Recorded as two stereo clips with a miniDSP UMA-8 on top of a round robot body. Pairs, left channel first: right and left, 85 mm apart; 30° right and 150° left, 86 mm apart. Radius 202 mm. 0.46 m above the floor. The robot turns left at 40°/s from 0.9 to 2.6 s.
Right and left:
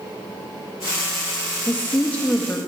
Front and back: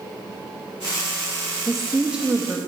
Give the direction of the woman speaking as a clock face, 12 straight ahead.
4 o'clock.